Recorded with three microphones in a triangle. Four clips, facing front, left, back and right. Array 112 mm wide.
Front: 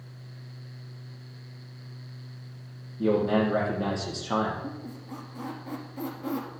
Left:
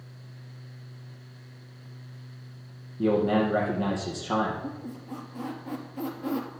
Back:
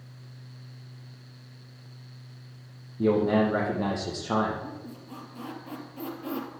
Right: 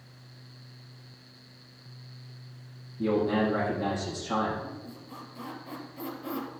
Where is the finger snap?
No finger snap in this recording.